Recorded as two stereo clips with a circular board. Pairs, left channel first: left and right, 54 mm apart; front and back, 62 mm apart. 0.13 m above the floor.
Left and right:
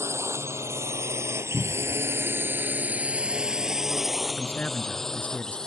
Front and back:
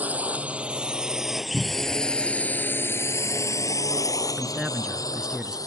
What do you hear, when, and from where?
0.0 s a drone: 115° right; by 5.7 s 15° left
1.5 s a cupboard door: 110° left
4.4 s a man speaking: 110° left